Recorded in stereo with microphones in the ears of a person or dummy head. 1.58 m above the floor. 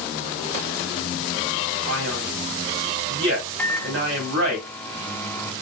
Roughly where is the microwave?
Centre.